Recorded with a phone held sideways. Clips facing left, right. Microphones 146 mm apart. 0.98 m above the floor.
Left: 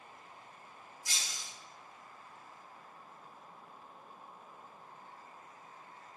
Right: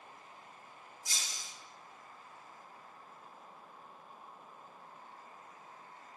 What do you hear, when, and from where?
1.1 s breaking glass: 85° left, 3 m